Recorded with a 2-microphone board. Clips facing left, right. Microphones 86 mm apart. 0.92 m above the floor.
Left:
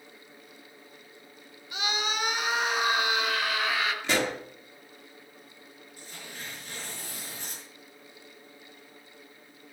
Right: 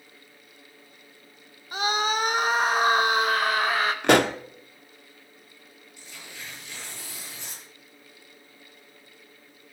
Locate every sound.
1.7 s a scream: 40° right (ahead or behind), 1.0 m
4.0 s a pop: 60° right (ahead or behind), 0.8 m
6.0 s tearing paper: 45° left (ahead or behind), 9 m